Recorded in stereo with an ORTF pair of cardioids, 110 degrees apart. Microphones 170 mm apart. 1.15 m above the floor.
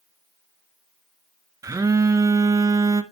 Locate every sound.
1.6 s a phone buzzing: 20° right, 0.8 m